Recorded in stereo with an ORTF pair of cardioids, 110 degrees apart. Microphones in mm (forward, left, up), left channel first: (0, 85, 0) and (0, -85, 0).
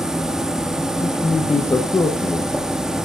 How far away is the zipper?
I don't hear a zipper.